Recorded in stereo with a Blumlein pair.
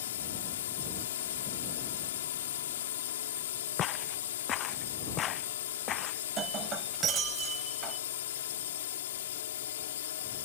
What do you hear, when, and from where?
0.0 s a drone: 60° left
3.8 s footsteps: 30° left
6.4 s breaking glass: 25° right